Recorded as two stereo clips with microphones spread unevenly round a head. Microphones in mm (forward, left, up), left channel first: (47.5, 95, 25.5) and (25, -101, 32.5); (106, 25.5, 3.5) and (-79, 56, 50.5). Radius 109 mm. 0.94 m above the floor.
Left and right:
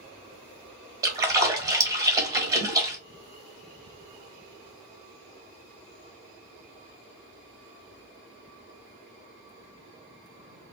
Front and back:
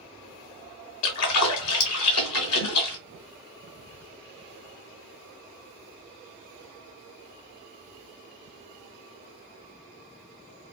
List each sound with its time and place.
1.0 s a splash: 25° right, 1.4 m